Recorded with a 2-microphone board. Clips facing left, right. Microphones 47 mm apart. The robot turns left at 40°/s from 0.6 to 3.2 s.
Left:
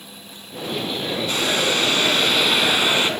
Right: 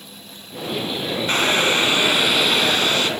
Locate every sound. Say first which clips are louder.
1.3 s boiling: right 4 dB; 130° right, 1.7 m; by 3.1 s 155° left, 1.7 m